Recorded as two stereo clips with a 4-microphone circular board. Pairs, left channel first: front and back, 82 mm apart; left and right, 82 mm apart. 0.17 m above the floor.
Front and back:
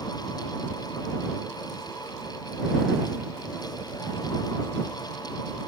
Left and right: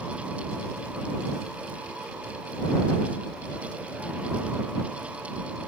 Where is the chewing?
I don't hear chewing.